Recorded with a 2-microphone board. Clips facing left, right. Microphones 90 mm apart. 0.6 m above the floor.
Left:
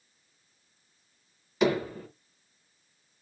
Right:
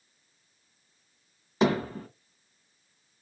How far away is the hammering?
About 1.9 m.